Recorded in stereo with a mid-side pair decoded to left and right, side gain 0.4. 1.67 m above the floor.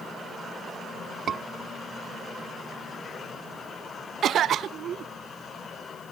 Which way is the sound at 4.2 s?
70° right.